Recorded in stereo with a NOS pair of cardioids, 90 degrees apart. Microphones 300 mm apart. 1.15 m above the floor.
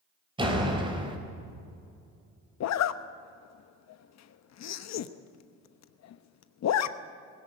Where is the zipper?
60° left, 1.0 m.